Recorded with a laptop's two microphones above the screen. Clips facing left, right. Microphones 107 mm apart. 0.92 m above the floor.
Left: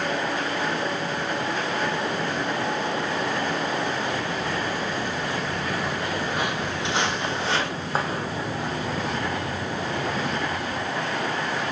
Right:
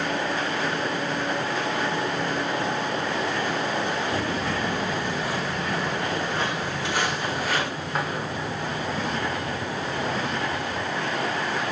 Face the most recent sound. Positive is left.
turn(degrees=45)  # may be behind; listen again after turning